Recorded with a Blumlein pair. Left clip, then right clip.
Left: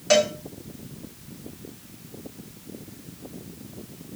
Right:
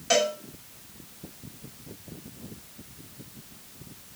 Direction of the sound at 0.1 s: 15° left.